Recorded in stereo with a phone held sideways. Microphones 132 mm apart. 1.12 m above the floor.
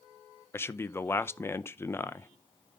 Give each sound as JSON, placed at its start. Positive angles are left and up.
{"t": 0.5, "sound": "a man speaking", "side_deg": 20, "distance_m": 0.5}